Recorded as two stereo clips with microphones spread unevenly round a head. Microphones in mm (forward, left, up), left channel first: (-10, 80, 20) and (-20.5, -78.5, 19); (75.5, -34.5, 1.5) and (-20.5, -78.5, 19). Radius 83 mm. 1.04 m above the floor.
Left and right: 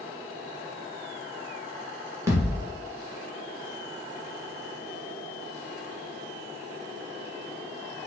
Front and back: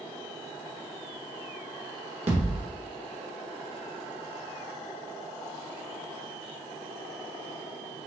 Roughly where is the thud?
Behind.